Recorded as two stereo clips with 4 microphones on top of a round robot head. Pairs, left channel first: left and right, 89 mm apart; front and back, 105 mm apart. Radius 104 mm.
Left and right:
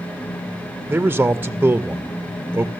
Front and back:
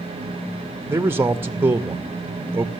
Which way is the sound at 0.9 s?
140° right.